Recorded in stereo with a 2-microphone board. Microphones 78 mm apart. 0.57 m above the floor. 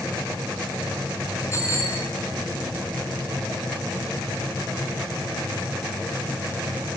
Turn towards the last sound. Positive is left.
turn(degrees=35)  # may be behind; listen again after turning